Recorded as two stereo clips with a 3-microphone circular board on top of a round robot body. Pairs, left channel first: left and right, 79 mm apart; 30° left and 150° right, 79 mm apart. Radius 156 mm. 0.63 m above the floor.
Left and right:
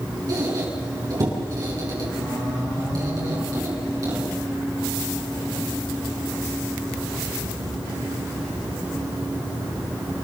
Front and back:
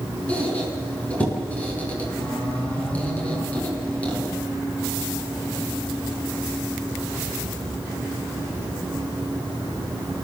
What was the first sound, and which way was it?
A squeak, 45° right.